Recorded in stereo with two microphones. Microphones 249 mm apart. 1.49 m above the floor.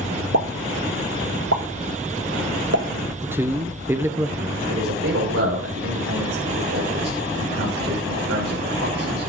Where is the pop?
75° right (ahead or behind), 1.5 m.